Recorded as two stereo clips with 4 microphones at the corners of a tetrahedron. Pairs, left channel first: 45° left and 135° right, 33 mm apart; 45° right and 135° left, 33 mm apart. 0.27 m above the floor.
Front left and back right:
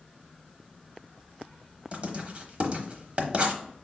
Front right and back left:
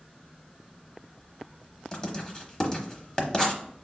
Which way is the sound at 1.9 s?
100° right.